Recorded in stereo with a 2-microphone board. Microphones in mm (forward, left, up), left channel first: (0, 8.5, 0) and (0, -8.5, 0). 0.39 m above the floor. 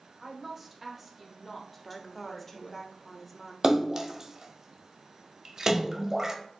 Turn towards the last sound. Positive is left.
turn(degrees=-35)  # may be behind; listen again after turning